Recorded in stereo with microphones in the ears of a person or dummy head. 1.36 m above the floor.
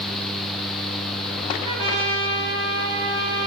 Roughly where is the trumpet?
Right.